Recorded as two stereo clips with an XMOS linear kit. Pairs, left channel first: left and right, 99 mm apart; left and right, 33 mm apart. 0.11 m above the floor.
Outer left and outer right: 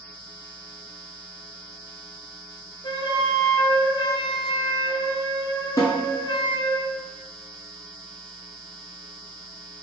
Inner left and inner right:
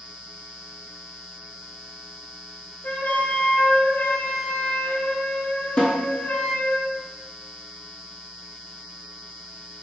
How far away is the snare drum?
About 1.3 m.